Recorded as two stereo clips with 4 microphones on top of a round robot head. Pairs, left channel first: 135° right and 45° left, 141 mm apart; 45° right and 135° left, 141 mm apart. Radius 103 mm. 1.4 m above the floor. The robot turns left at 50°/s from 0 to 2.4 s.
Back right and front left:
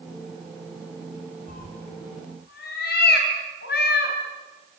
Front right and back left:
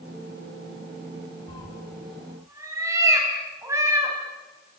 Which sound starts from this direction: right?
A cat meowing, at 1.5 s.